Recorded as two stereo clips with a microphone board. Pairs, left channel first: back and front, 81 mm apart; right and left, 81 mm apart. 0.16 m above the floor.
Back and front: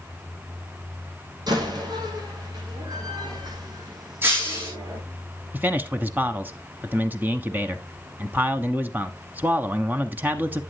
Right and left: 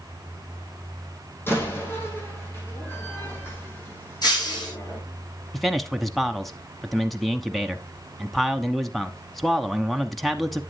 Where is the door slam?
30° right, 5.5 m.